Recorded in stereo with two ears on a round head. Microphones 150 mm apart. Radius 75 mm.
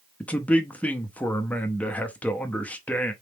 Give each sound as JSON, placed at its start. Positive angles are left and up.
{"t": 0.2, "sound": "a man speaking", "side_deg": 10, "distance_m": 0.7}